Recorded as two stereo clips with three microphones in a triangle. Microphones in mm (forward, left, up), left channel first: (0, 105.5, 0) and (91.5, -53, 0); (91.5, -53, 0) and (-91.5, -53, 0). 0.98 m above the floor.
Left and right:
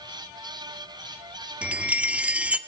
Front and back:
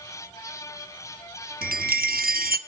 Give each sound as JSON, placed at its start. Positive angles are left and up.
{"t": 1.6, "sound": "a chime", "azimuth_deg": -145, "distance_m": 1.0}